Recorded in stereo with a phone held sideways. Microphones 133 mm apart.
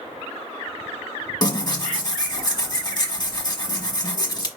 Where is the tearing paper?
35° left (ahead or behind), 1.1 m.